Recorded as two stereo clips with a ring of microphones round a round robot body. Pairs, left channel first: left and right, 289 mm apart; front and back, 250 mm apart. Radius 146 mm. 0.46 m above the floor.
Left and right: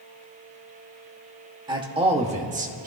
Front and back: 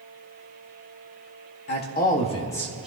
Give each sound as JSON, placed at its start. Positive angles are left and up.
{"t": 1.7, "sound": "a man speaking", "azimuth_deg": -20, "distance_m": 1.6}